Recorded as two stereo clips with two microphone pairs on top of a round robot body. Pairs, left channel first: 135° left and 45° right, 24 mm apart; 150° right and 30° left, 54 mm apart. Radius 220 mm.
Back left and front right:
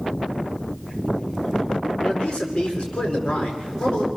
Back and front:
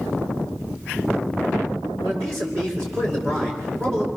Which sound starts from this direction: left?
A man speaking, at 2.0 s.